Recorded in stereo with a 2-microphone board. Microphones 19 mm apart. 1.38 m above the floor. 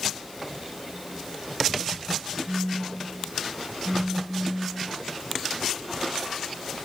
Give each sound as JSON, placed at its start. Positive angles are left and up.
{"t": 2.5, "sound": "a phone buzzing", "side_deg": 25, "distance_m": 0.8}